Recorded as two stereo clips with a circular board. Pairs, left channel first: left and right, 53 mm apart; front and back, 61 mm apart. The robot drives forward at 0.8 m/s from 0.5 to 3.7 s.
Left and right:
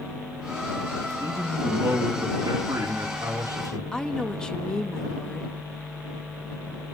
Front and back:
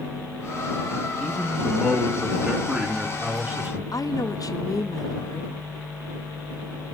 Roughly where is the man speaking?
Right.